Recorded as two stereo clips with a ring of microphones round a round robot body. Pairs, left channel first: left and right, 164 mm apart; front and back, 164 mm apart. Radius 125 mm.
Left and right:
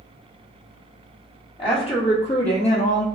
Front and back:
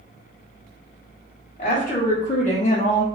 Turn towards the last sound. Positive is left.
turn(degrees=50)